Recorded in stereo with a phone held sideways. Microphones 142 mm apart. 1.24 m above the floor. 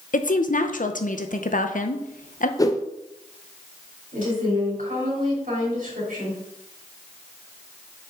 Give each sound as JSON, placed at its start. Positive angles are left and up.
{"t": 0.1, "sound": "a woman speaking", "side_deg": 65, "distance_m": 0.8}
{"t": 2.6, "sound": "a whoosh", "side_deg": 25, "distance_m": 0.6}
{"t": 4.1, "sound": "a woman speaking", "side_deg": -75, "distance_m": 3.0}